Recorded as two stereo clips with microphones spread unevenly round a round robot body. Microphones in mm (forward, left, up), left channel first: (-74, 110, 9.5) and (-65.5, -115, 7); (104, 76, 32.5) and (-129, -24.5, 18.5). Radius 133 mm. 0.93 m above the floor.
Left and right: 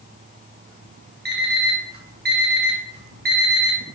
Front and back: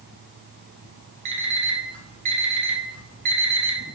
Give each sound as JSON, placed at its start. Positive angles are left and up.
{"t": 1.2, "sound": "an alarm clock", "azimuth_deg": -135, "distance_m": 2.0}